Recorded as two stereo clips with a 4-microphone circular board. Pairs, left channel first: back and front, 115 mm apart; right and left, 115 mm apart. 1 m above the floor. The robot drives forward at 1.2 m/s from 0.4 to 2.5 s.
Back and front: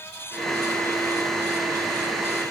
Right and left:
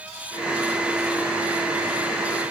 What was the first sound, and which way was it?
Only background noise.